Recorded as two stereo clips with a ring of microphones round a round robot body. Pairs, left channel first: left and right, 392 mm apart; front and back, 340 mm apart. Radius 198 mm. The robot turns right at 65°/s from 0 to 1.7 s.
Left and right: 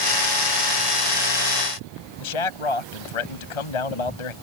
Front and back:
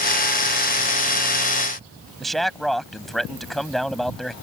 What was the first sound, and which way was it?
A man speaking, 90° left.